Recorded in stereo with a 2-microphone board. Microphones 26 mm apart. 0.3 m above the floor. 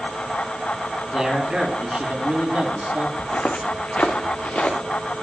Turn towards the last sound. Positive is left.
turn(degrees=75)  # may be behind; listen again after turning